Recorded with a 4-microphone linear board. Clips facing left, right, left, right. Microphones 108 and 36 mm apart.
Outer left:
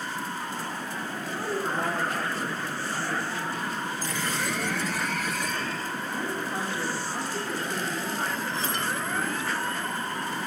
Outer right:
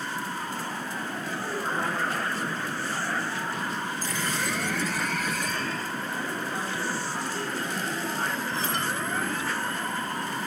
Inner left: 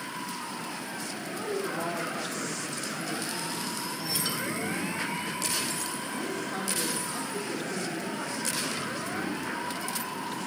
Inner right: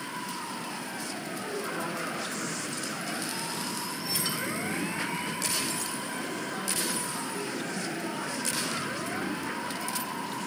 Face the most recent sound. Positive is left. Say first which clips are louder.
# outer left 2 dB, inner left 3 dB
turn(degrees=50)  # may be behind; listen again after turning